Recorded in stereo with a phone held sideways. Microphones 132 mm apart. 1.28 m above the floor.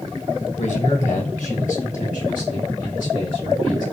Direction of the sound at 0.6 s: 65° left (ahead or behind).